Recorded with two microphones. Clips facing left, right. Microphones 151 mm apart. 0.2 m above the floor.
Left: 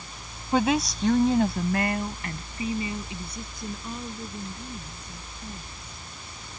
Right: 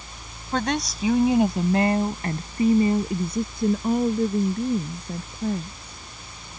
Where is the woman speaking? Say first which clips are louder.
Left 2 dB; 10° left (ahead or behind); by 6.0 s 60° right (ahead or behind).